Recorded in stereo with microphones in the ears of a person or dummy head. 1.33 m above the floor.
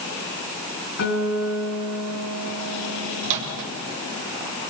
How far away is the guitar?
About 5 m.